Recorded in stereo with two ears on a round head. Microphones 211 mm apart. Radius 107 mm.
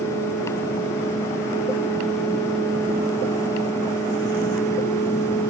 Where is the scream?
I don't hear a scream.